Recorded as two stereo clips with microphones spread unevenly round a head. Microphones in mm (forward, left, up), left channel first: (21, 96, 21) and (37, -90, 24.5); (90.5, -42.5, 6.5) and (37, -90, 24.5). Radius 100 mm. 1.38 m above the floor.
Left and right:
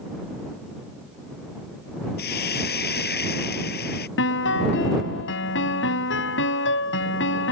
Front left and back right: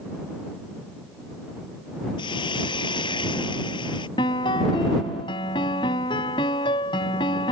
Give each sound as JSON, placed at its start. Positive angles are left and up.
{"t": 2.2, "sound": "a hiss", "azimuth_deg": 60}
{"t": 4.2, "sound": "a piano", "azimuth_deg": 75}